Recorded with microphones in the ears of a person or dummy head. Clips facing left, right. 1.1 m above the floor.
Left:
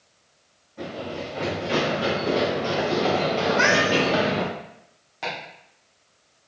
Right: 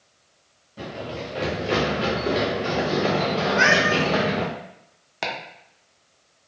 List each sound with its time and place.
0.8 s running footsteps: 35° right (ahead or behind), 1.4 m; by 4.5 s 5° left (ahead or behind), 1.7 m
3.5 s a cat meowing: 15° right (ahead or behind), 0.7 m
5.2 s chopping: 70° right (ahead or behind), 0.6 m